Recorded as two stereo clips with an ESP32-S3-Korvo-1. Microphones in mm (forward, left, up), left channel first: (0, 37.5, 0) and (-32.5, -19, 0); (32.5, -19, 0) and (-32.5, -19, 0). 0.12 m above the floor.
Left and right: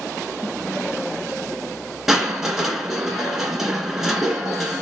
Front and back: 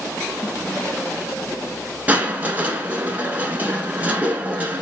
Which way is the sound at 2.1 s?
160° left.